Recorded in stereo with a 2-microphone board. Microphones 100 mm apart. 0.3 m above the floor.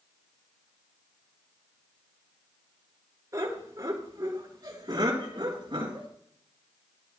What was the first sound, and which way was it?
Laughter, 35° right (ahead or behind).